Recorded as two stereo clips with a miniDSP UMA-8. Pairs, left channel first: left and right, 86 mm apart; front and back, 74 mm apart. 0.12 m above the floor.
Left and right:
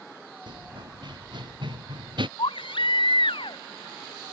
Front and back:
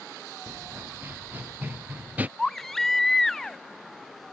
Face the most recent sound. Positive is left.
turn(degrees=85)